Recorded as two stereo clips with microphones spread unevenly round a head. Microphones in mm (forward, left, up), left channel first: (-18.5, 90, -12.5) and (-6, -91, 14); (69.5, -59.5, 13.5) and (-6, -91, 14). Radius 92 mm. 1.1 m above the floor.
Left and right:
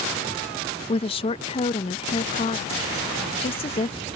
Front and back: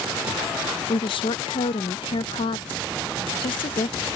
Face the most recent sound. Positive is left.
turn(degrees=35)